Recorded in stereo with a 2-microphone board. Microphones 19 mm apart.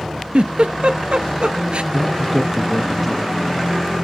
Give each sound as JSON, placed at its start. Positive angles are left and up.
{"t": 0.3, "sound": "a giggle", "side_deg": -70, "distance_m": 0.5}
{"t": 1.9, "sound": "a man speaking", "side_deg": 0, "distance_m": 1.1}